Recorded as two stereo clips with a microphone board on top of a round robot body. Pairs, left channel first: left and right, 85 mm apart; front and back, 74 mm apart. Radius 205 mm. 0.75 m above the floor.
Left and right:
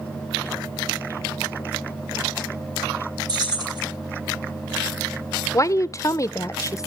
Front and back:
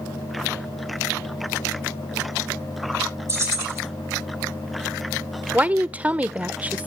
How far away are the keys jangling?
About 5.5 m.